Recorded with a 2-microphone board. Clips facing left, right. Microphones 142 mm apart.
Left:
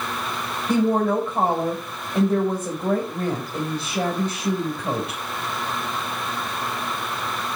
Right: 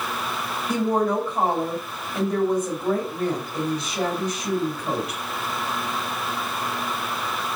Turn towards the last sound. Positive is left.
turn(degrees=35)  # may be behind; listen again after turning